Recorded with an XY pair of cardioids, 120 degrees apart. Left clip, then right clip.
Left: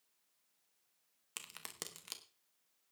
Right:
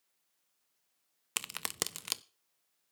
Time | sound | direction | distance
1.4 | a crack | 60° right | 0.6 m